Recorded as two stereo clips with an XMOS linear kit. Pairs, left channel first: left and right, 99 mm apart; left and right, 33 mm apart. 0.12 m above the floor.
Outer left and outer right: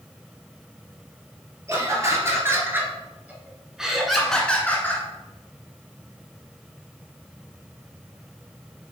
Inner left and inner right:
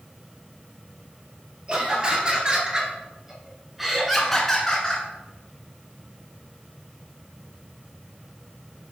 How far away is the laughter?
About 3 m.